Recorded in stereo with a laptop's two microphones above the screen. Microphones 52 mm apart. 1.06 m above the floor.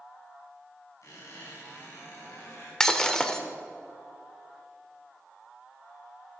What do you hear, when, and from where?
1.0 s a squeak: 85° left, 4.5 m
2.8 s breaking glass: 10° left (ahead or behind), 1.1 m